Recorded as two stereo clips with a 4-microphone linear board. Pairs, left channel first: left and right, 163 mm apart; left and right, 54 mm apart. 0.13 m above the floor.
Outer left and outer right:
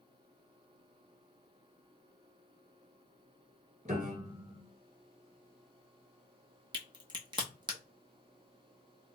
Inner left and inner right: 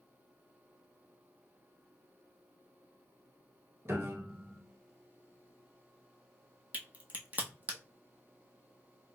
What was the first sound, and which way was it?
A piano, 50° right (ahead or behind).